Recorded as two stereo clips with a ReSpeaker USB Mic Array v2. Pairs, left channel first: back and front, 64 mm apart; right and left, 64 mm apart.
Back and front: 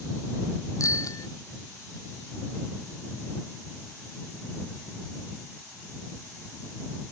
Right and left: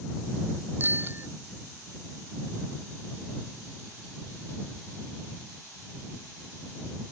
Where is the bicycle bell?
145° left.